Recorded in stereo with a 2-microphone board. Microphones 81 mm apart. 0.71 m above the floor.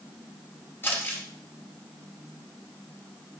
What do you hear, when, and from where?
0.8 s crumpling: 25° left (ahead or behind), 5 m